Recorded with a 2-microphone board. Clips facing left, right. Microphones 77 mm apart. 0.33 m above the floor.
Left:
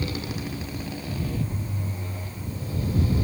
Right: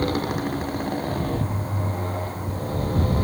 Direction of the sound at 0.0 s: 50° right (ahead or behind).